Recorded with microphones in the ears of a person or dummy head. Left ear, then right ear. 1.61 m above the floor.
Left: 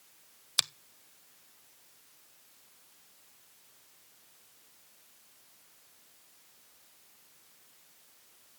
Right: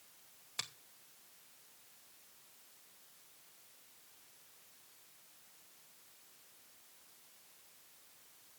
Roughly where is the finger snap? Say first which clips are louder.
Left 13 dB; left.